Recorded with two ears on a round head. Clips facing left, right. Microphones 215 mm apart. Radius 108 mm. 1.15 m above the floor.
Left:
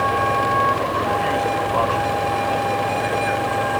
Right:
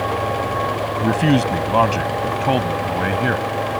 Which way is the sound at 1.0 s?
65° right (ahead or behind).